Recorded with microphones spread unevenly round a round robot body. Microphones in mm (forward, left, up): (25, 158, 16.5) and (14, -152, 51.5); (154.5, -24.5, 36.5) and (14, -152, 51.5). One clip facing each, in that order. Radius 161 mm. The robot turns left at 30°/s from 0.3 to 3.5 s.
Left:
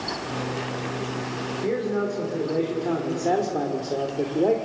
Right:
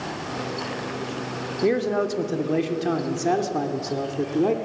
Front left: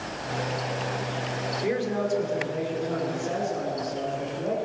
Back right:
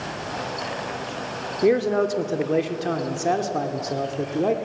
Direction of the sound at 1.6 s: 110° right.